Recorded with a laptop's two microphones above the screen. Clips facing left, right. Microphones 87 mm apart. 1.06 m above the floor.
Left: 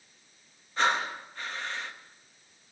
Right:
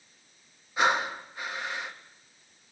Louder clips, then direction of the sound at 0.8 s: Right 2 dB; 10° right (ahead or behind).